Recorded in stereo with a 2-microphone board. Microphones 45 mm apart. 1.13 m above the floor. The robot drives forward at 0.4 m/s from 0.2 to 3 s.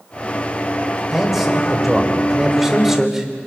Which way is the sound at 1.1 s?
10° right (ahead or behind).